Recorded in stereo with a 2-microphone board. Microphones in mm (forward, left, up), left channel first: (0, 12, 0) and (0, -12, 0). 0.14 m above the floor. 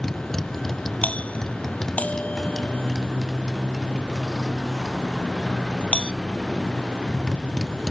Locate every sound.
0.0 s a motorcycle: 15° left (ahead or behind)
1.0 s a doorbell: 65° left (ahead or behind)